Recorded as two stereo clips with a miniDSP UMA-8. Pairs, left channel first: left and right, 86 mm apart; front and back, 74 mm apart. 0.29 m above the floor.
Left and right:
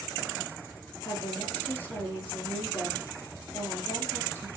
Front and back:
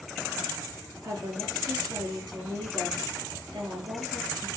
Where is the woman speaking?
155° left, 5.5 m.